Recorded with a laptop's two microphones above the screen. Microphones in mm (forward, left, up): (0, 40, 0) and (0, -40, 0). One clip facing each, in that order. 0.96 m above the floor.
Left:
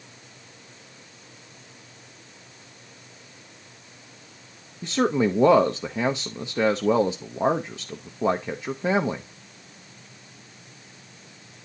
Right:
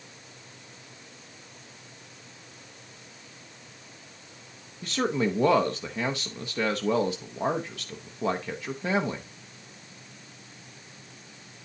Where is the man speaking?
20° left (ahead or behind), 0.5 m.